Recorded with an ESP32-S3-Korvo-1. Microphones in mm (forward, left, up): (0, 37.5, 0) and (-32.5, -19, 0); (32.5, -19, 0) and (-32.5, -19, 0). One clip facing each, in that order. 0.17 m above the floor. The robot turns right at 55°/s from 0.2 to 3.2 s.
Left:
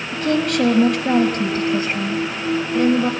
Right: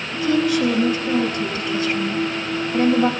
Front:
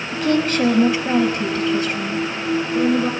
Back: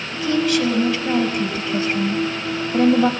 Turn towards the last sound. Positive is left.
turn(degrees=-160)